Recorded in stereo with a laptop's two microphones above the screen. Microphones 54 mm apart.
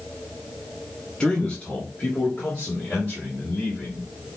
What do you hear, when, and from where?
1.2 s a man speaking: 20° left (ahead or behind), 0.9 m; by 4.4 s 25° left (ahead or behind), 3 m